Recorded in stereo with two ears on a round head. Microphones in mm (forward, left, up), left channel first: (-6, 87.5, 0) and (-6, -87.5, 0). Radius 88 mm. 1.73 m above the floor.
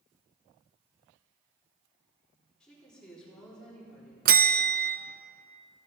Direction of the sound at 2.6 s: 5° left (ahead or behind).